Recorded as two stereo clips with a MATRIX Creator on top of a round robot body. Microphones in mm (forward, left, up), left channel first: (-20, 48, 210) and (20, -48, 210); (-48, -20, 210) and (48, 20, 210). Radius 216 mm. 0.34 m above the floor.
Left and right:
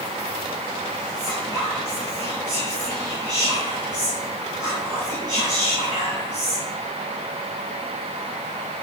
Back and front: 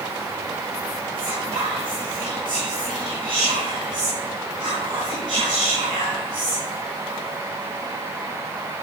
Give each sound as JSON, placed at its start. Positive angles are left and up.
{"t": 1.2, "sound": "whispering", "azimuth_deg": -20, "distance_m": 5.0}